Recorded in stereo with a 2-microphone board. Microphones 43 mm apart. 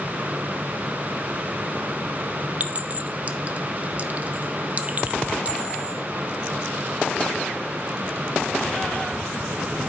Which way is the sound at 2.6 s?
35° right (ahead or behind).